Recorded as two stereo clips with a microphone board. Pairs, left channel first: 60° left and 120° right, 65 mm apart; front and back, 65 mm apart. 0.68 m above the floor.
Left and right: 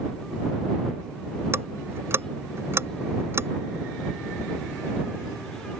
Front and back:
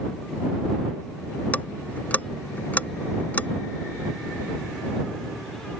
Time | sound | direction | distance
1.5 | ticking | 70° right | ?